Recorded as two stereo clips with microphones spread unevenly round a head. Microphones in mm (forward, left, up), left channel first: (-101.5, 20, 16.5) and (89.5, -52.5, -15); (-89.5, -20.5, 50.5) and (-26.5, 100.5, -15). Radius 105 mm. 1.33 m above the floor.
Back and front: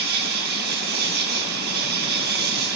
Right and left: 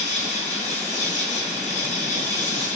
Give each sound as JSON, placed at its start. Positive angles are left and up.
{"t": 0.0, "sound": "an insect", "azimuth_deg": -65, "distance_m": 2.5}